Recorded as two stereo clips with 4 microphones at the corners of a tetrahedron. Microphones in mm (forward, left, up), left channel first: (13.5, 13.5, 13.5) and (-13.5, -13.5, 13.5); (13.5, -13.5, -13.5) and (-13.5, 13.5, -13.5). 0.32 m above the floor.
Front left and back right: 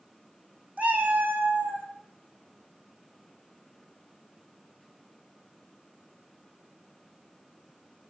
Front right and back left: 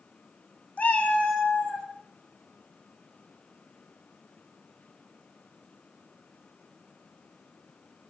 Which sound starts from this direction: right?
A cat meowing, at 0.8 s.